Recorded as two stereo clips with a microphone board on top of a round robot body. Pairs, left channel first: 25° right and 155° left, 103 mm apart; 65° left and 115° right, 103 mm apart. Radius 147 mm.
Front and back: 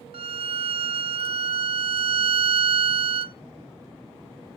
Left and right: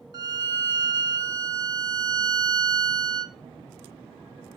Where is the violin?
165° right, 0.7 m.